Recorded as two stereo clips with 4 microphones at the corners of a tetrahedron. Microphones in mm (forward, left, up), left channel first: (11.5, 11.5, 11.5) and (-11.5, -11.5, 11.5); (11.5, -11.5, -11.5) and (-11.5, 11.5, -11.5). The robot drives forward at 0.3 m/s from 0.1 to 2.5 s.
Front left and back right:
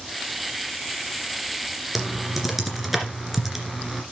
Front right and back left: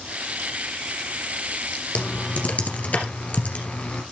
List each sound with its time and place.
1.9 s typing on a keyboard: 50° right, 2.5 m; by 4.0 s 55° right, 2.5 m